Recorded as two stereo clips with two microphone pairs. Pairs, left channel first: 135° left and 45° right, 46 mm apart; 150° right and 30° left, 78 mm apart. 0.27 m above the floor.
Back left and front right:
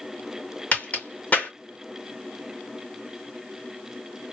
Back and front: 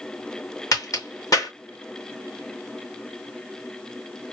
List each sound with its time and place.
0.7 s a crack: 175° right, 2.5 m